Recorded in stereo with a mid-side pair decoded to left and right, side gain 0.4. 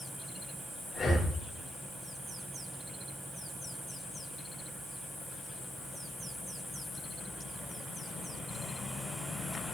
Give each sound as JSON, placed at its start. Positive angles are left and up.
{"t": 0.9, "sound": "breathing", "azimuth_deg": 35, "distance_m": 4.5}